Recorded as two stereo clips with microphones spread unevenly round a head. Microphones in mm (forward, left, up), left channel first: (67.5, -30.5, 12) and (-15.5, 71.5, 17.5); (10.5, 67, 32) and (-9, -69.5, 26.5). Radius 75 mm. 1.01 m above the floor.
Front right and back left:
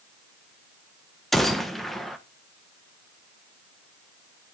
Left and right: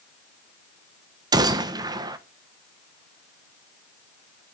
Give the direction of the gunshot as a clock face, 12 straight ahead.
4 o'clock.